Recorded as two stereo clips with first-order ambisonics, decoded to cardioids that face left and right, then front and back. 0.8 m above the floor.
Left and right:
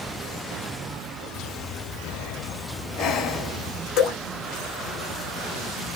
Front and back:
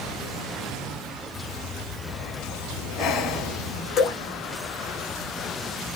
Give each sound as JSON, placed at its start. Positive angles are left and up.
{"t": 1.4, "sound": "breathing", "azimuth_deg": 45, "distance_m": 1.8}
{"t": 4.0, "sound": "dripping", "azimuth_deg": 55, "distance_m": 4.5}